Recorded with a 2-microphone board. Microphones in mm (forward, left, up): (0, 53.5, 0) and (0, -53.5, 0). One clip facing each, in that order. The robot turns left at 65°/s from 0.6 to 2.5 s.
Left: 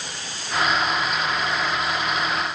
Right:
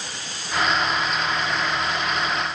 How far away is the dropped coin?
I don't hear a dropped coin.